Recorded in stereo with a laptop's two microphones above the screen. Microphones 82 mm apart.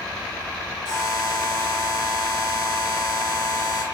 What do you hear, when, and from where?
0.8 s a buzzer: 55° left (ahead or behind), 1.7 m